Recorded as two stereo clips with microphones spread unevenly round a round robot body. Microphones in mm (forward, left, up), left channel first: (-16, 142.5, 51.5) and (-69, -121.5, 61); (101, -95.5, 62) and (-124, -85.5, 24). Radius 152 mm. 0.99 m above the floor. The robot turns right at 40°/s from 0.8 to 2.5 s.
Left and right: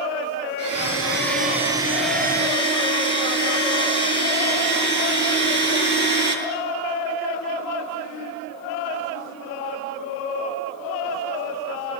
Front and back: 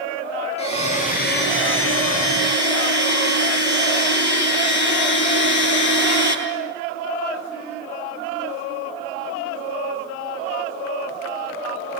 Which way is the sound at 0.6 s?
65° right.